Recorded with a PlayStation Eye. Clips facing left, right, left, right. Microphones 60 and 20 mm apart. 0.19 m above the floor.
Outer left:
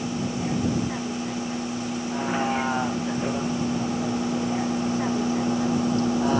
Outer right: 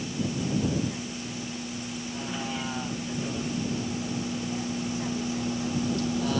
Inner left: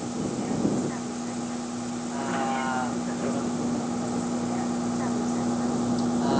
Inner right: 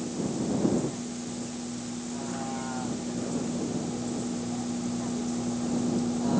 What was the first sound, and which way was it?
A vehicle, 40° left (ahead or behind).